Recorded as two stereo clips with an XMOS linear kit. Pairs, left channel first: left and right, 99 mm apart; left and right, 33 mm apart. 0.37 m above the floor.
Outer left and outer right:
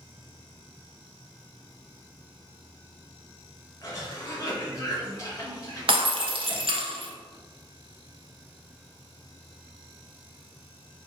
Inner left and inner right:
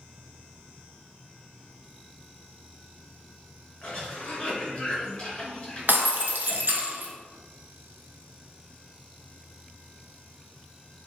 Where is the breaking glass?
65° right (ahead or behind), 0.6 m.